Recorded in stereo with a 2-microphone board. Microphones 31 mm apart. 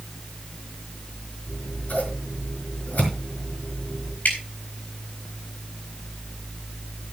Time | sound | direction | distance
1.5 | scissors | 70° left (ahead or behind) | 5 m
4.2 | dripping | 70° left (ahead or behind) | 4 m